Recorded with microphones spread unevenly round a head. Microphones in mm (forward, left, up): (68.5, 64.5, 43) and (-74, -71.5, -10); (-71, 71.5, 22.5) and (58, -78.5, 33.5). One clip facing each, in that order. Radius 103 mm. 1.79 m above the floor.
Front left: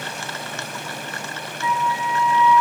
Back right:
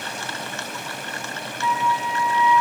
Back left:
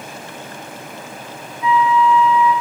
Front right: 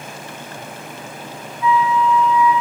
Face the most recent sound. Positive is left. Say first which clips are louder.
# even, back left 1 dB
turn(degrees=75)